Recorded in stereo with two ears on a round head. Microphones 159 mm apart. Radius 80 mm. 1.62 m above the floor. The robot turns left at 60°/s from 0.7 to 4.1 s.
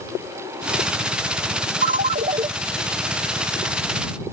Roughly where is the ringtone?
Right.